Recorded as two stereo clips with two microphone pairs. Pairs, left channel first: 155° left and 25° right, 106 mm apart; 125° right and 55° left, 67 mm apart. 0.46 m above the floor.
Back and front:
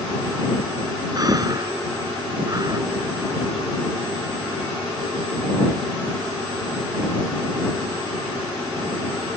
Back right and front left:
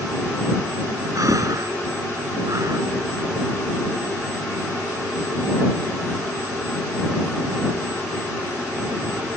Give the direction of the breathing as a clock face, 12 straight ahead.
11 o'clock.